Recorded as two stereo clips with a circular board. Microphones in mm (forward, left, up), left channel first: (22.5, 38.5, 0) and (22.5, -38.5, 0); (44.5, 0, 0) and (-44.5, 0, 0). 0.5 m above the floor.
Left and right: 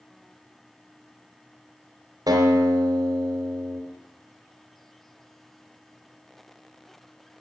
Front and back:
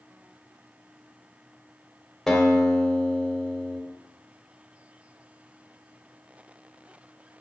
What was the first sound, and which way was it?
A guitar, 90° right.